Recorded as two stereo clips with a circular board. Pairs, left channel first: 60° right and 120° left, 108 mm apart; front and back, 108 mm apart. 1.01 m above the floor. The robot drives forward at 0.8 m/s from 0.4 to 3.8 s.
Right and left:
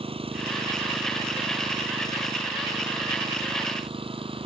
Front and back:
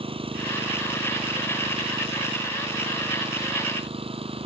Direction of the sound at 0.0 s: 150° left.